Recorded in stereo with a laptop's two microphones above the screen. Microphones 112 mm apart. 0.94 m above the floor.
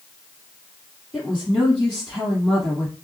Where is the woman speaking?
5° left (ahead or behind), 1.7 m.